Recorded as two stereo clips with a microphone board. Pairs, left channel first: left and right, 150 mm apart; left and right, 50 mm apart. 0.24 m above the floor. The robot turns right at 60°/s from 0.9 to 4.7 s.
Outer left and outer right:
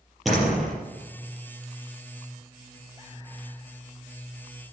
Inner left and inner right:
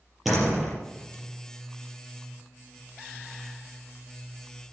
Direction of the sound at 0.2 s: Centre (ahead or behind).